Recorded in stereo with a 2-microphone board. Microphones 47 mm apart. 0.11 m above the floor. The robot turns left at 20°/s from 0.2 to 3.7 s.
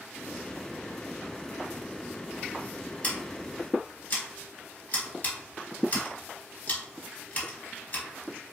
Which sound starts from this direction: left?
Scissors, at 3.0 s.